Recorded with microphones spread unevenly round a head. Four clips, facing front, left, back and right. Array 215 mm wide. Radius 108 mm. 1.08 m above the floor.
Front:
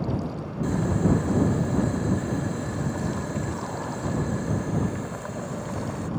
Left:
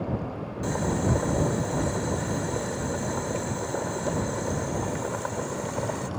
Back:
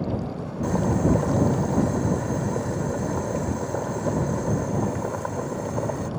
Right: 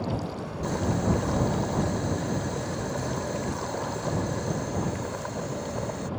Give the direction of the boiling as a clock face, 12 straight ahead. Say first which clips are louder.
Even, back 2 dB; 7 o'clock.